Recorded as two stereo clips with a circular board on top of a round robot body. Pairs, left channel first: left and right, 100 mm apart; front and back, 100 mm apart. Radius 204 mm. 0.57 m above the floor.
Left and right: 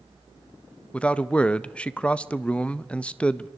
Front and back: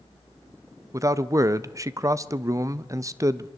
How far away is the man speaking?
About 1.0 m.